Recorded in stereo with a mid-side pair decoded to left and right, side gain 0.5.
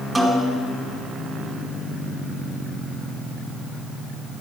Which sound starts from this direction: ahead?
A snare drum, at 0.1 s.